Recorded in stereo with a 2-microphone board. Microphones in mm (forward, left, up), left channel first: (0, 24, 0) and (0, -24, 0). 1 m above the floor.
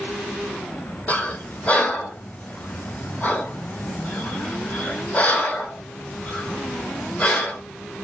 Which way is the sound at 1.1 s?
30° left (ahead or behind).